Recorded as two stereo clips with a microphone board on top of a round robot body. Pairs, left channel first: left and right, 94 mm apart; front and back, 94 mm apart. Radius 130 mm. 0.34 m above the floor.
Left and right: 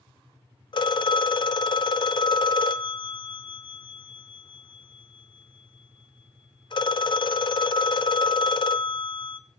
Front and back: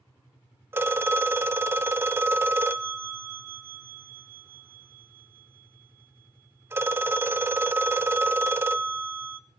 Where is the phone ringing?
115° left, 0.8 m.